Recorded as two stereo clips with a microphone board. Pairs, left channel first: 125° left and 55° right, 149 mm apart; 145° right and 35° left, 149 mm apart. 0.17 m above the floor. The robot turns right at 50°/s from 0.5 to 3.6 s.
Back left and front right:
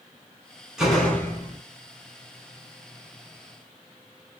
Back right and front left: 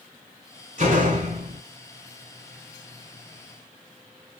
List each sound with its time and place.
0.8 s a door slam: 30° left, 1.2 m; by 1.6 s 70° left, 1.2 m